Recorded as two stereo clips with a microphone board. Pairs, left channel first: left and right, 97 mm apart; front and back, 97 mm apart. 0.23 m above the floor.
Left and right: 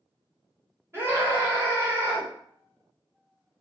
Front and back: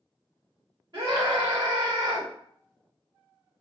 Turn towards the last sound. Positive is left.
turn(degrees=-145)